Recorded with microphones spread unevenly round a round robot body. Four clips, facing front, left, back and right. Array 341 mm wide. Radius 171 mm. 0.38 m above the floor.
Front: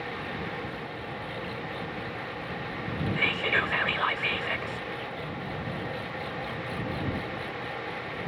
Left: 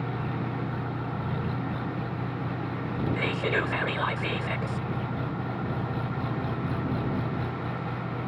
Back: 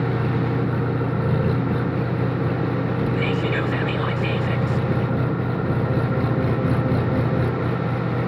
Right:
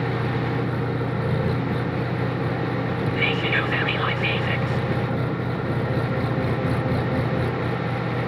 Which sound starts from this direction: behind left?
Whispering, at 3.2 s.